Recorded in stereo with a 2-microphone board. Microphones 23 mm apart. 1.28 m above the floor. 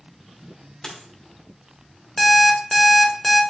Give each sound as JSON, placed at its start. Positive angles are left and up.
{"t": 0.8, "sound": "a dropped coin", "side_deg": 35, "distance_m": 1.0}
{"t": 2.2, "sound": "an alarm clock", "side_deg": 20, "distance_m": 0.8}